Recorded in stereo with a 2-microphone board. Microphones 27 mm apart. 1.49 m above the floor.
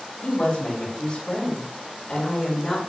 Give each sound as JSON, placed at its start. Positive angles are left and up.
{"t": 0.2, "sound": "a woman speaking", "side_deg": 55, "distance_m": 3.0}